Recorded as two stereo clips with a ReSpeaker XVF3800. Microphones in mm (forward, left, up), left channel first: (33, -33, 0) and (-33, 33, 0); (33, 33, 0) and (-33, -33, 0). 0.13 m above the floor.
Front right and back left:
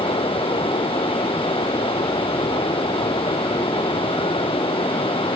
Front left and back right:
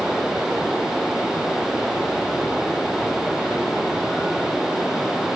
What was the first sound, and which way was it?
Running water, 50° right.